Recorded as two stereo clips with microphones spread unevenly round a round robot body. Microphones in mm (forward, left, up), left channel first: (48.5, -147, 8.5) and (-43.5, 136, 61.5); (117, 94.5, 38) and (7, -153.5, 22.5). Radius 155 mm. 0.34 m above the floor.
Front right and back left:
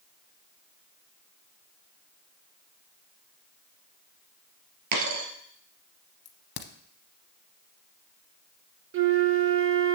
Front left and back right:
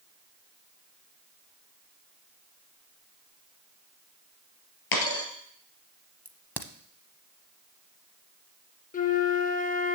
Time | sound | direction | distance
4.9 | a dropped coin | 70° left | 2.5 m
6.2 | a crack | 20° right | 0.8 m
8.9 | a flute | 95° left | 0.9 m